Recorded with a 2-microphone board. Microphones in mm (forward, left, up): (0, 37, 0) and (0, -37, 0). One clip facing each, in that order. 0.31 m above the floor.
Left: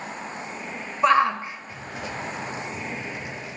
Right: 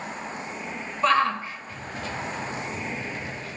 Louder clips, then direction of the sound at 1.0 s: Left 3 dB; 20° left (ahead or behind).